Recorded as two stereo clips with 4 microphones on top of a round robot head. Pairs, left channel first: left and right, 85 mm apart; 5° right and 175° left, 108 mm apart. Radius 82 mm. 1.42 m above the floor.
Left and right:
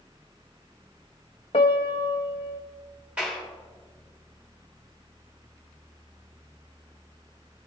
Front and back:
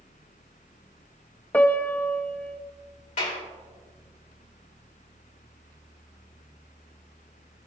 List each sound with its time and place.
1.5 s a piano: 70° left, 0.6 m
3.2 s a clap: 10° right, 3 m